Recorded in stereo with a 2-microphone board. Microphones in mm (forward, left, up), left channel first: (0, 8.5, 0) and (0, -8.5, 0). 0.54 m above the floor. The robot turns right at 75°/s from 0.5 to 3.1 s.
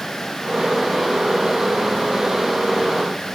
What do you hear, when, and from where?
Only background noise.